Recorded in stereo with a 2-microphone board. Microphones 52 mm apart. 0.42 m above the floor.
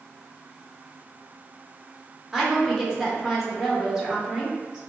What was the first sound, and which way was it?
A woman speaking, 5° right (ahead or behind).